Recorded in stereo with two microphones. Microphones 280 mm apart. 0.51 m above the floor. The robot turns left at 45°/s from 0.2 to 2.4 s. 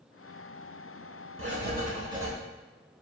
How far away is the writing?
About 1.0 m.